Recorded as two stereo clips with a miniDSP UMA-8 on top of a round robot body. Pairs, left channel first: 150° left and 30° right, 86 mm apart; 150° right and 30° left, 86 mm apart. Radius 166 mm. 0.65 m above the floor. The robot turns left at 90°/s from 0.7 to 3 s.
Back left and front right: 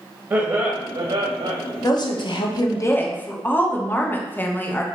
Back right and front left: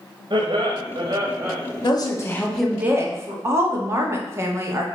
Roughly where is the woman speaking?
Behind.